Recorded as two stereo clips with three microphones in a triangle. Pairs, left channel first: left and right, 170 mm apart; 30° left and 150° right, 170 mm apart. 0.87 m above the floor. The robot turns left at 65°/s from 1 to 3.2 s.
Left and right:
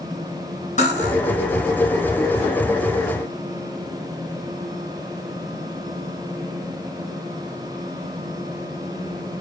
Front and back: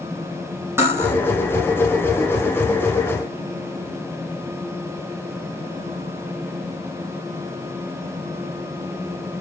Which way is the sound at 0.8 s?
135° left.